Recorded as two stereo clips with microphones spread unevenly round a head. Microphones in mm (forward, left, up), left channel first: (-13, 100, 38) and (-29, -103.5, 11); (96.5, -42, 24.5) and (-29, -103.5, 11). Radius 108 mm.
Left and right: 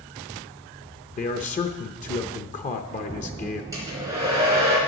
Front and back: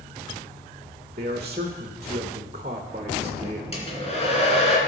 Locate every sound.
1.2 s a man speaking: 145° left, 0.7 m
3.7 s a hair dryer: 15° right, 3 m